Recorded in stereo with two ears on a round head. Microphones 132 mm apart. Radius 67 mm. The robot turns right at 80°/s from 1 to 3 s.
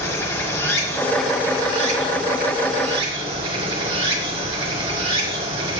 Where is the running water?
160° left, 1.3 m; by 5.8 s 40° right, 1.3 m.